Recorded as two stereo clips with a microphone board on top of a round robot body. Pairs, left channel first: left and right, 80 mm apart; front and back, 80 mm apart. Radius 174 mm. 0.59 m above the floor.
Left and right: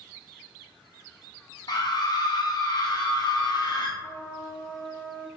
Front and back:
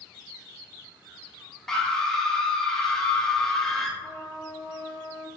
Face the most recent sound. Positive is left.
turn(degrees=30)